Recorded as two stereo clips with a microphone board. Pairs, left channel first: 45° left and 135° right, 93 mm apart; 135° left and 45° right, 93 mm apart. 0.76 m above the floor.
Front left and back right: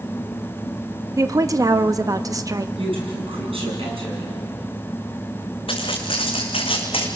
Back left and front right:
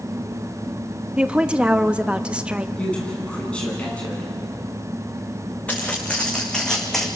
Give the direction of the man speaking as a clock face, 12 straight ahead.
5 o'clock.